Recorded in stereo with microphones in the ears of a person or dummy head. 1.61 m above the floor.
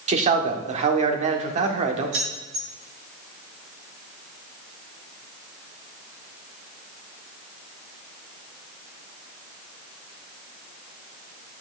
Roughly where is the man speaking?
Right.